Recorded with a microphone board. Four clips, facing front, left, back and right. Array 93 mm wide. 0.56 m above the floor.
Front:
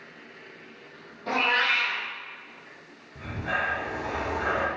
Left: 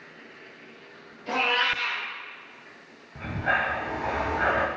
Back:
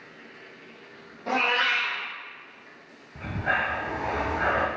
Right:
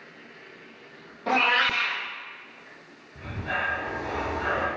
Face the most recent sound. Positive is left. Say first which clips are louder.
# left 4 dB, back 3 dB
turn(degrees=125)